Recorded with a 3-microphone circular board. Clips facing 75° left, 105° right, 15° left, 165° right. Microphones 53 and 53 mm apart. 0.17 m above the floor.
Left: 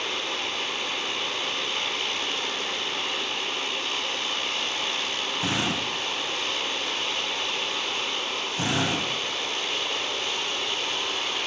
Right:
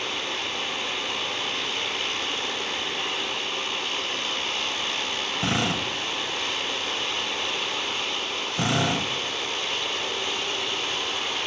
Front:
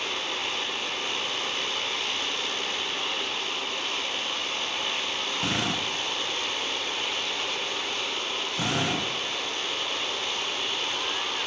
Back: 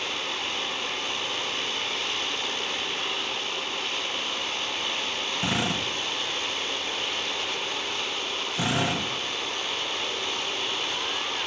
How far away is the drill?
About 7 m.